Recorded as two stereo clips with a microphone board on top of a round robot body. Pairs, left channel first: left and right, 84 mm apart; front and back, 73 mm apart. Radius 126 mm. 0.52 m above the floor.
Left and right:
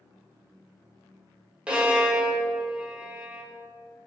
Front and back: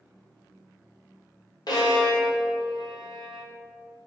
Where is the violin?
15° right, 1.8 m.